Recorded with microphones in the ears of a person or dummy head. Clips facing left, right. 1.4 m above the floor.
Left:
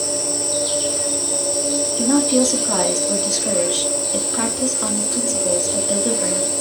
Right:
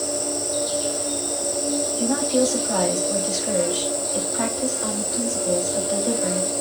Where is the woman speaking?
85° left, 3 m.